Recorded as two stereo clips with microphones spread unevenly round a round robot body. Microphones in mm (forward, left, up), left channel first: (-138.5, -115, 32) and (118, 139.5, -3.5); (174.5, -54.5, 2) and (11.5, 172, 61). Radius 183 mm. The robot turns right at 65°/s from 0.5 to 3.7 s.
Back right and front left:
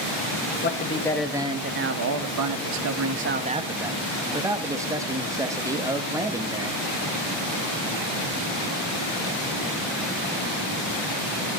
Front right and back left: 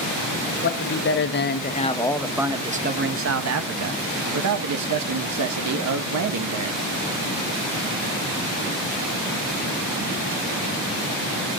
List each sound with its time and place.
0.6 s a man speaking: 80° right, 1.3 m; by 6.8 s 120° left, 1.3 m